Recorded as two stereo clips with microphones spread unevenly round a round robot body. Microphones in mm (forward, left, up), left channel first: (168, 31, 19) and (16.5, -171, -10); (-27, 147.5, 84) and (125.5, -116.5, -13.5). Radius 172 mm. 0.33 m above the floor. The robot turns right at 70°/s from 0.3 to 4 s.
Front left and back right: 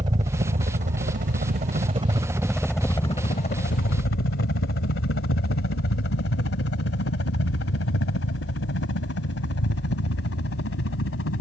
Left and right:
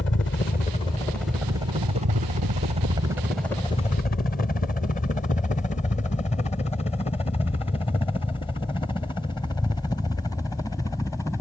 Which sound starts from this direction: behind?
A helicopter, at 0.0 s.